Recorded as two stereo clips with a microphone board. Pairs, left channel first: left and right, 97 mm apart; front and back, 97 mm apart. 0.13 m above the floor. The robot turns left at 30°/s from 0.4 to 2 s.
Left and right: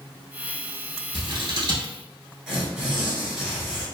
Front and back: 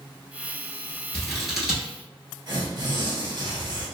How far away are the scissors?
About 1.1 m.